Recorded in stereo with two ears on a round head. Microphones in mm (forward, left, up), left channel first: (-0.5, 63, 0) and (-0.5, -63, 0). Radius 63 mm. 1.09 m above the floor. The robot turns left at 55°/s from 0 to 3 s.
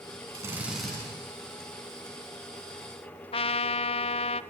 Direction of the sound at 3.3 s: 40° left (ahead or behind).